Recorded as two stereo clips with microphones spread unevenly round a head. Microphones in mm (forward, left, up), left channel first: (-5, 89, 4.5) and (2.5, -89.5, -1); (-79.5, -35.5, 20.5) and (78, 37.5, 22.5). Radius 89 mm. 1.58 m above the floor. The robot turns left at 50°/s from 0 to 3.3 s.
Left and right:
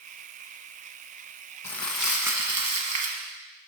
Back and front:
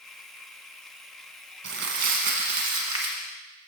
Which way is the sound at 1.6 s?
20° left.